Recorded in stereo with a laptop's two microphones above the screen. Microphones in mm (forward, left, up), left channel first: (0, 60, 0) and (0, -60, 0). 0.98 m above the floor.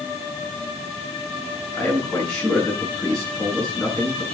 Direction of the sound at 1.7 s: 5° left (ahead or behind).